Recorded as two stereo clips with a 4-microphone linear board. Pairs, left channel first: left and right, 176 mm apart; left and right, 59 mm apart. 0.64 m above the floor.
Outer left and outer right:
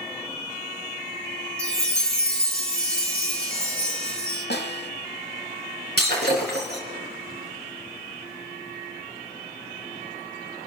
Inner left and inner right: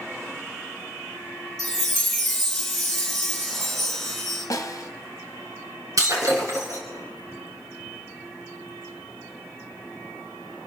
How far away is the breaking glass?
About 4 m.